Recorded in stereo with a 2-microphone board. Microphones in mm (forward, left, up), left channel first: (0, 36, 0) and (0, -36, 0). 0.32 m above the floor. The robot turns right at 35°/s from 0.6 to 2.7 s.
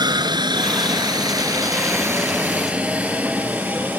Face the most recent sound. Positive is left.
turn(degrees=-20)  # may be behind; listen again after turning